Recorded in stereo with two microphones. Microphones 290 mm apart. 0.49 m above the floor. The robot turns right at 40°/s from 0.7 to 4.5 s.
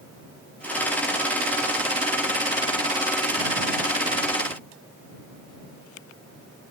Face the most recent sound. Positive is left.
No sound to turn to.